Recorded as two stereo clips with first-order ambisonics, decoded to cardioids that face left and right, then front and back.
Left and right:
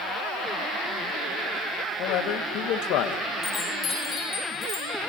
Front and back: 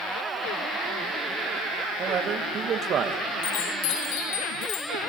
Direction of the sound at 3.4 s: 15° left.